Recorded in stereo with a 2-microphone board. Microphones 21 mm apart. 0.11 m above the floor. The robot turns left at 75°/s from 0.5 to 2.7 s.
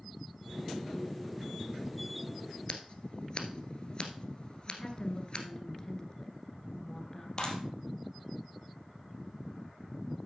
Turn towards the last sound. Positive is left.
turn(degrees=30)  # may be behind; listen again after turning